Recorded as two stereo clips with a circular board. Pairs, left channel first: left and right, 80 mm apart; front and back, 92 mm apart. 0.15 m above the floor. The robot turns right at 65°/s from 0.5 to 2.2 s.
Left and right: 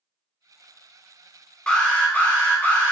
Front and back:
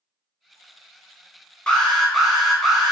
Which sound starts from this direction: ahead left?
An alarm, at 1.7 s.